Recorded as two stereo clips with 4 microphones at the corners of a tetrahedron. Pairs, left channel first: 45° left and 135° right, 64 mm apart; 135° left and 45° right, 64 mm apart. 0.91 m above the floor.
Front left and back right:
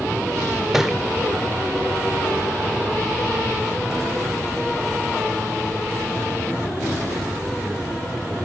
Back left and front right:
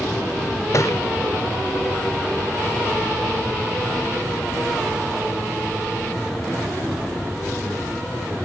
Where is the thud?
145° left, 0.8 m.